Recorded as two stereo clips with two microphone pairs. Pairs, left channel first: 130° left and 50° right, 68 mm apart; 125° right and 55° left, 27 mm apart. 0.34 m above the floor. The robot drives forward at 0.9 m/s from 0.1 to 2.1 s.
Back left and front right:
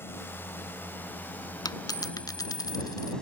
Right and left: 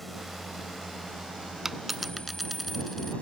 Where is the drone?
155° left; by 3.2 s 155° right.